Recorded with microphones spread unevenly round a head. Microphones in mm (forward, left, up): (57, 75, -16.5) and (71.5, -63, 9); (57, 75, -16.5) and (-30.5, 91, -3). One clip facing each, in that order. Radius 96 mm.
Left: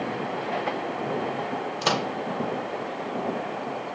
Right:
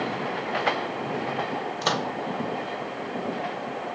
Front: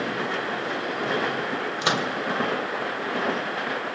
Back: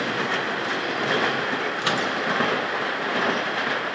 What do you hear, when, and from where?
1.8 s a microwave: 35° left, 0.5 m